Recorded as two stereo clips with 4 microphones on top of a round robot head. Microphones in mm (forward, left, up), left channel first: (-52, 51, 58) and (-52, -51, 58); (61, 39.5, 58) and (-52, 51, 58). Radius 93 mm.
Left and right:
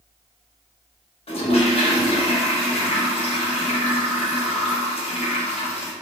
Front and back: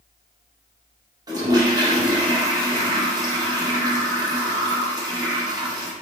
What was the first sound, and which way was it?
A toilet flushing, 115° left.